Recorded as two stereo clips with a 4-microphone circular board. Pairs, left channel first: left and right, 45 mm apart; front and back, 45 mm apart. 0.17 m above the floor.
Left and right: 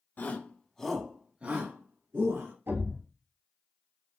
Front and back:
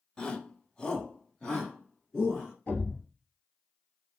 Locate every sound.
0.2 s a shout: 65° left, 1.3 m; by 2.5 s 80° right, 2 m
2.7 s a thud: 60° right, 2.0 m